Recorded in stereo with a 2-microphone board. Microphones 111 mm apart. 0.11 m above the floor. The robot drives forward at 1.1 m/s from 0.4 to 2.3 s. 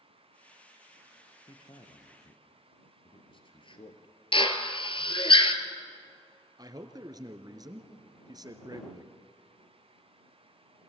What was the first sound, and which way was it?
A man speaking, 45° left (ahead or behind).